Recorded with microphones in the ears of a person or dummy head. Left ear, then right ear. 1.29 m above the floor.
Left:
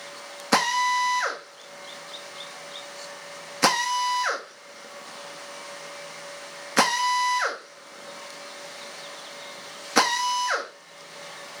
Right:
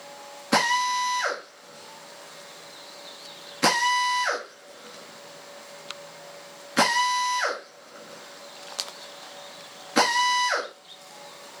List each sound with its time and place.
0.5 s a drill: 35° left (ahead or behind), 1.4 m